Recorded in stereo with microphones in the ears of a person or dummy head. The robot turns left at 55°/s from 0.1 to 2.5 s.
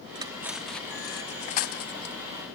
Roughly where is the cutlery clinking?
Right.